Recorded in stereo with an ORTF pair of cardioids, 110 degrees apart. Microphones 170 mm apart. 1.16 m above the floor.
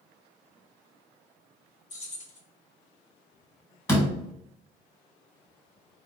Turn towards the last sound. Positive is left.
turn(degrees=15)